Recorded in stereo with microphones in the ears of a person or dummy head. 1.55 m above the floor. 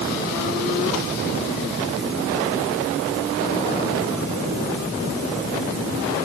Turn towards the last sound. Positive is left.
No sound to turn to.